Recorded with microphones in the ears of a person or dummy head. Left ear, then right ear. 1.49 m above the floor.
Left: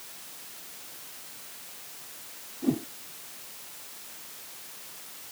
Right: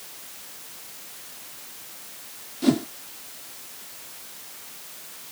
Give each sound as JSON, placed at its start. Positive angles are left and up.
{"t": 2.6, "sound": "a whoosh", "side_deg": -65}